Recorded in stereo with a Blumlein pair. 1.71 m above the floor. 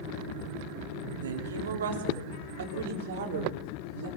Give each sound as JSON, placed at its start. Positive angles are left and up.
{"t": 1.2, "sound": "a woman speaking", "azimuth_deg": -65, "distance_m": 4.0}